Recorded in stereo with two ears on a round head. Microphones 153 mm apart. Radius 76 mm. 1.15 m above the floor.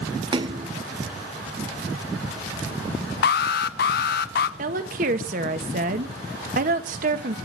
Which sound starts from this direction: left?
An alarm, at 3.2 s.